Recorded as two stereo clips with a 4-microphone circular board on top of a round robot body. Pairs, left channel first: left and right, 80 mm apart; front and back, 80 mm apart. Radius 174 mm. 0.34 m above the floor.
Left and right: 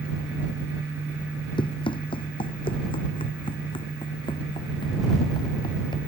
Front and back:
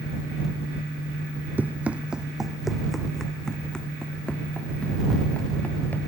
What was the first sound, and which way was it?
Running footsteps, 110° left.